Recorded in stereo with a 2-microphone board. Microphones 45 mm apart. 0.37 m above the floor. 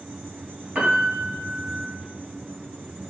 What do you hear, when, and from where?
0.8 s a piano: 35° right (ahead or behind), 2.5 m